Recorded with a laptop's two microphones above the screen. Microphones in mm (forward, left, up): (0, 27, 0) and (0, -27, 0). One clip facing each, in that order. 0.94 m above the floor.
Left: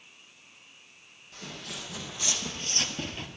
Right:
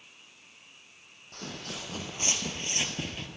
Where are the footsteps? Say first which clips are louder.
Right 1 dB; 55° right (ahead or behind), 1.9 m; by 3.3 s 5° left (ahead or behind), 1.0 m.